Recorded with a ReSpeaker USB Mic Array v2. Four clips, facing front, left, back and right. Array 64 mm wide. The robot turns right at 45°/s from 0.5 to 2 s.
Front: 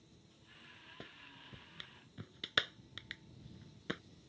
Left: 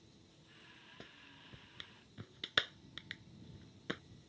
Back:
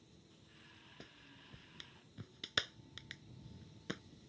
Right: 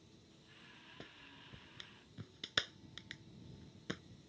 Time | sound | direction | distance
1.0 | a clap | 5° right | ?